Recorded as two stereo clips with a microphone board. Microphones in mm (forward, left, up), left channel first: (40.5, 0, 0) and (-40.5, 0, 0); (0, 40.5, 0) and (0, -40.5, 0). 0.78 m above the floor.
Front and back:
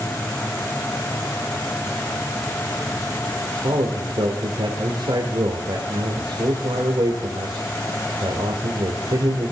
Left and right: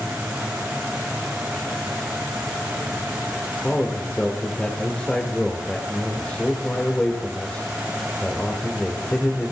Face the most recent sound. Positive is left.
turn(degrees=170)